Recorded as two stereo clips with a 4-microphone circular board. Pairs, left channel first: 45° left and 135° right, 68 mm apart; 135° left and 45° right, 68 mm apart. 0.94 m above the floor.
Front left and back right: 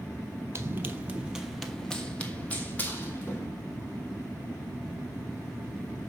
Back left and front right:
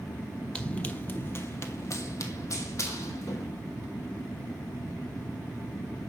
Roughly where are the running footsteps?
Behind right.